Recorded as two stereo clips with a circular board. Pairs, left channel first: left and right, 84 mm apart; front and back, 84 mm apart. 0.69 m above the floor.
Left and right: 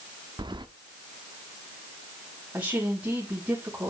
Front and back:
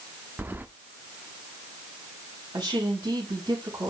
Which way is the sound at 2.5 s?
160° right.